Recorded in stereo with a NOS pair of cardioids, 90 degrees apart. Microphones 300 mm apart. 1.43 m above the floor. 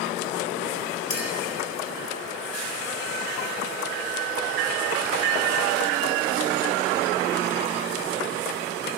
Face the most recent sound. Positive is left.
turn(degrees=35)